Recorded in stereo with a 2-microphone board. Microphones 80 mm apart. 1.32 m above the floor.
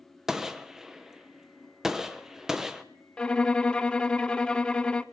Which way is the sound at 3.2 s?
15° left (ahead or behind).